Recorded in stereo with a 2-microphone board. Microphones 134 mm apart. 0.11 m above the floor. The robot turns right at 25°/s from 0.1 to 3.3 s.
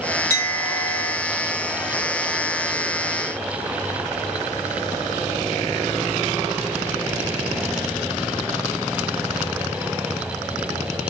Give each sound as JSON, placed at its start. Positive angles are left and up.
{"t": 0.3, "sound": "a clink", "side_deg": 20, "distance_m": 1.1}